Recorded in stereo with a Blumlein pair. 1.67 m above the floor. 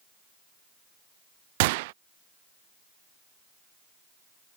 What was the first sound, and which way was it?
A gunshot, 50° right.